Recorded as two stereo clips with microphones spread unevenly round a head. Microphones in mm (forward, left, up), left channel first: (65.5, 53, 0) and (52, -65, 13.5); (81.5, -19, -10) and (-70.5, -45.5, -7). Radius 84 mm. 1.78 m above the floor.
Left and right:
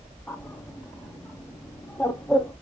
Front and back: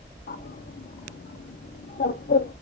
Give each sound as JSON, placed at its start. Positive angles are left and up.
{"t": 0.3, "sound": "a bird", "azimuth_deg": 5, "distance_m": 0.7}